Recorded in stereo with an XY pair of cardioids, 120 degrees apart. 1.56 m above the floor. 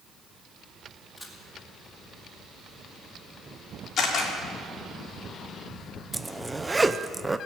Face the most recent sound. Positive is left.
turn(degrees=-15)